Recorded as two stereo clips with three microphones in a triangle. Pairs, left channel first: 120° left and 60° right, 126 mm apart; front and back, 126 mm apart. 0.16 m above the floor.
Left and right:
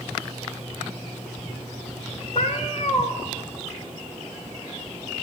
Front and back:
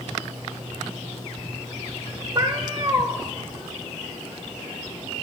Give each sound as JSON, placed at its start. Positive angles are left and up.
{"t": 2.4, "sound": "a cat meowing", "azimuth_deg": 130, "distance_m": 1.2}